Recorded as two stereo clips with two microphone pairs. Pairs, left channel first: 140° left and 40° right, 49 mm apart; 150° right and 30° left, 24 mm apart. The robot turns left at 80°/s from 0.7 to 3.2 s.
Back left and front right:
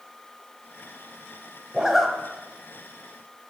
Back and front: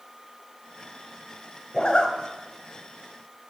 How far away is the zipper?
About 1.2 m.